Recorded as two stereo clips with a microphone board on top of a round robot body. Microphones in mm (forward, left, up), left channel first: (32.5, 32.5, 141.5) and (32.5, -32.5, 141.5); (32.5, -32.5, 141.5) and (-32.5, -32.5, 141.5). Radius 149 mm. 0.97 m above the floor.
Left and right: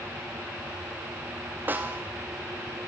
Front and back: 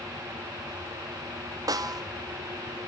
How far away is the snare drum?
About 0.6 m.